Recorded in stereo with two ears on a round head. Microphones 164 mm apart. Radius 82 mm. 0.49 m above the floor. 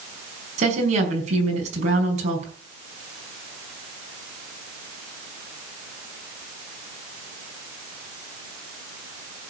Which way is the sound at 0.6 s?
40° right (ahead or behind).